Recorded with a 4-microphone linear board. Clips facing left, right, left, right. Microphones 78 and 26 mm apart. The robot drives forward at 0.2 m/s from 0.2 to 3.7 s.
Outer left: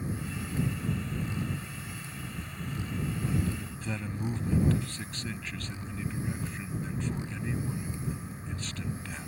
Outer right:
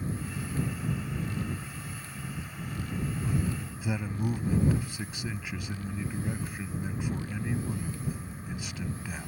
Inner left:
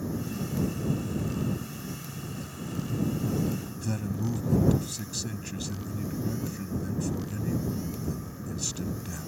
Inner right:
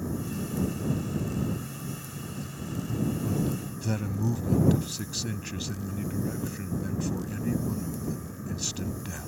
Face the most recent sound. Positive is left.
turn(degrees=-10)  # may be behind; listen again after turning